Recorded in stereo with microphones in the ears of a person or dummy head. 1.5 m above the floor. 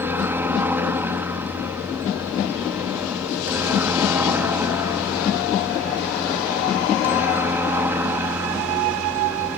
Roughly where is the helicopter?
Centre.